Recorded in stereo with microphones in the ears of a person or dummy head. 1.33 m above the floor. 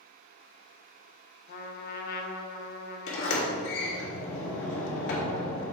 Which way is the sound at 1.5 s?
55° left (ahead or behind).